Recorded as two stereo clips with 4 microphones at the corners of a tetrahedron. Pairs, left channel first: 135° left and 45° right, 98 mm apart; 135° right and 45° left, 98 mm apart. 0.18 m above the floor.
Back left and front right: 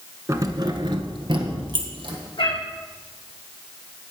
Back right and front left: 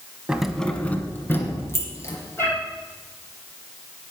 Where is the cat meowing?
160° left, 4 m.